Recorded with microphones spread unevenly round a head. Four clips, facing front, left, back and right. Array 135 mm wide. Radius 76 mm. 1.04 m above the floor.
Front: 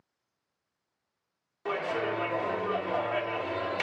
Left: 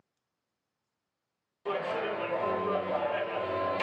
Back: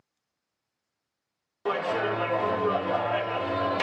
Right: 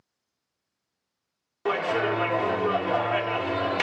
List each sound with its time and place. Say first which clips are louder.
1.6 s a clap: right 7 dB, back 4 dB; 125° right, 1.5 m